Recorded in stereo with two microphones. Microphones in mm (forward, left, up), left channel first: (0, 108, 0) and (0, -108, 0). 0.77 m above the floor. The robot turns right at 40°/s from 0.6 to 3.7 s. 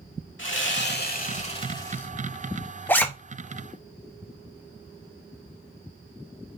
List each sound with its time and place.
0.4 s sawing: 115° left, 1.2 m; by 2.1 s 175° left, 1.2 m
2.9 s a zipper: 10° left (ahead or behind), 0.8 m; by 3.1 s 5° left (ahead or behind), 0.8 m